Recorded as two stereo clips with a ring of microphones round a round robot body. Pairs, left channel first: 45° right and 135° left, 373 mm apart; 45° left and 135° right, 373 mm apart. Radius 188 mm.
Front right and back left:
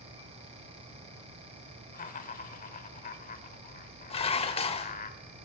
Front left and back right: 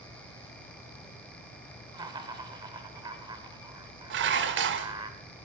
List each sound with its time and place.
1.9 s laughter: 75° right, 1.1 m
4.1 s dishes clattering: 105° right, 0.7 m